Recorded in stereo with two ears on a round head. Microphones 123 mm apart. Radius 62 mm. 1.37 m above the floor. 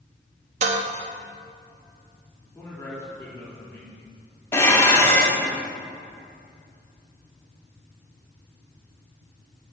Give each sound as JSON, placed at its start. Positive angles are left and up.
{"t": 0.6, "sound": "dishes clattering", "side_deg": -50, "distance_m": 1.2}
{"t": 2.5, "sound": "a man speaking", "side_deg": 20, "distance_m": 3.5}
{"t": 4.5, "sound": "dishes clattering", "side_deg": 20, "distance_m": 1.9}